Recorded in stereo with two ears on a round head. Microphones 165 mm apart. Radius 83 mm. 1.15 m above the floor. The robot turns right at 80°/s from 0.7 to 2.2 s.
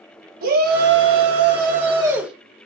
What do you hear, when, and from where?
0.4 s a shout: 125° right, 1.0 m; by 2.3 s 5° right, 1.0 m